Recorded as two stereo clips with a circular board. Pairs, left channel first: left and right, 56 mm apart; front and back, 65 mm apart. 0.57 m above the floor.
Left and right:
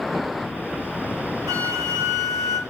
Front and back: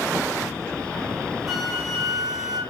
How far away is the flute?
About 5 m.